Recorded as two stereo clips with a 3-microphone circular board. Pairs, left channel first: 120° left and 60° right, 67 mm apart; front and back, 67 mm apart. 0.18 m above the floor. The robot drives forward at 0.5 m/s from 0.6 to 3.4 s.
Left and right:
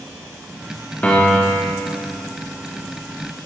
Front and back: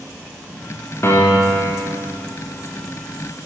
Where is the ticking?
No ticking in this recording.